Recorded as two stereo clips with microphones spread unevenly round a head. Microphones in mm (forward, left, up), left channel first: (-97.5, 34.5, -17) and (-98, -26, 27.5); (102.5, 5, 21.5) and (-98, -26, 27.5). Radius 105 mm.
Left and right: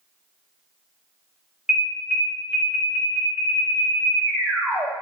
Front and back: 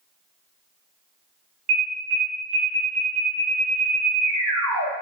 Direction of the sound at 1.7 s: 160° right.